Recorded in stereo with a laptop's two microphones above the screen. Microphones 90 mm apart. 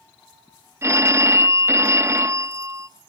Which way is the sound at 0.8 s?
30° right (ahead or behind).